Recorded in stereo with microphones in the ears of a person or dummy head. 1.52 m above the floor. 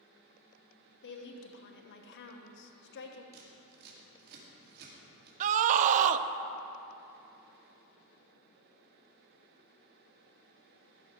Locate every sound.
1.0 s a woman speaking: 55° left (ahead or behind), 1.1 m
3.3 s scissors: 50° right (ahead or behind), 2.5 m
5.4 s a scream: 35° right (ahead or behind), 0.6 m